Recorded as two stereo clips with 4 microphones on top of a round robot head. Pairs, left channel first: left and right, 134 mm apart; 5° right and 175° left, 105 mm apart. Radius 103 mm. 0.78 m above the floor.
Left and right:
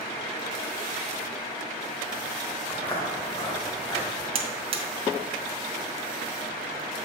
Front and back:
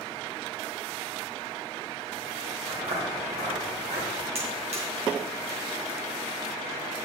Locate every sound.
2.7 s footsteps: 170° left, 1.9 m; by 4.1 s 155° left, 3 m
4.3 s a buzzer: 130° right, 0.6 m